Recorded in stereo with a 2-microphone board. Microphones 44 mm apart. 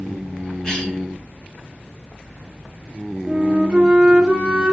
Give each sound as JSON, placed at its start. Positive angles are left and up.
{"t": 0.6, "sound": "a cough", "side_deg": 20, "distance_m": 1.2}
{"t": 3.3, "sound": "a flute", "side_deg": -20, "distance_m": 1.0}